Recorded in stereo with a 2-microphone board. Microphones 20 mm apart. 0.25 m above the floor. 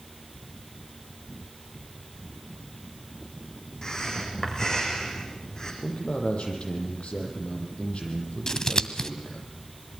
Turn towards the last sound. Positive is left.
turn(degrees=35)  # may be behind; listen again after turning